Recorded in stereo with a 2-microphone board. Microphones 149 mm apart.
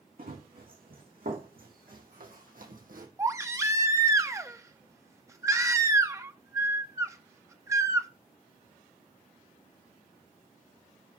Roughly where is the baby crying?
Centre.